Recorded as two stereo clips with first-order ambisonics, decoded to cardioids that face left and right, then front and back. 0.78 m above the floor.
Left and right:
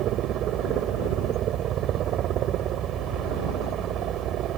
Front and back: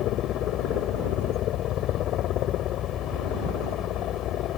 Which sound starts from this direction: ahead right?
A helicopter, at 0.0 s.